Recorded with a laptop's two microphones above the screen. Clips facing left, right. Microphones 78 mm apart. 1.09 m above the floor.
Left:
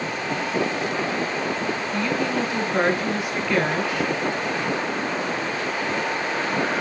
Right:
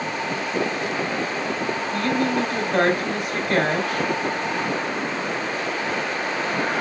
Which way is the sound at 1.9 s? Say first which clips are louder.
Right 3 dB; 75° right (ahead or behind).